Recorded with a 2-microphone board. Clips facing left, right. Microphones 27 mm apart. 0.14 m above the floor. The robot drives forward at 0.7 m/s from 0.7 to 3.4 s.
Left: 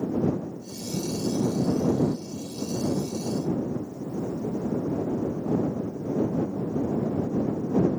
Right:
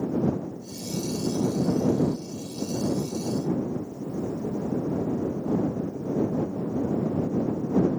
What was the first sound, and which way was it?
Only background noise.